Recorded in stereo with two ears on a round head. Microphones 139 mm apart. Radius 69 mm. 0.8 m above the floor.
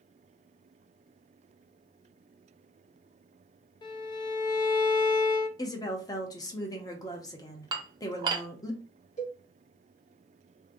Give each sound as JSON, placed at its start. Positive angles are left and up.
{"t": 3.8, "sound": "a violin", "side_deg": 30, "distance_m": 0.6}
{"t": 5.6, "sound": "a woman speaking", "side_deg": 25, "distance_m": 0.7}
{"t": 7.7, "sound": "dishes clattering", "side_deg": -25, "distance_m": 0.6}
{"t": 9.2, "sound": "a cowbell", "side_deg": 45, "distance_m": 2.0}